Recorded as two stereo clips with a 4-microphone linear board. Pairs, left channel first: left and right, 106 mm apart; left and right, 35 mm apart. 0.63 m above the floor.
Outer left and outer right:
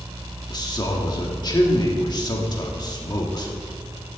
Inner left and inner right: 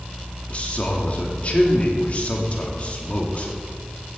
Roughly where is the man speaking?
Left.